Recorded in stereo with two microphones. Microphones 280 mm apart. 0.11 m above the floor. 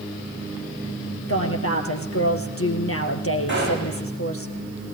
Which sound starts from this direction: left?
A woman speaking, at 1.3 s.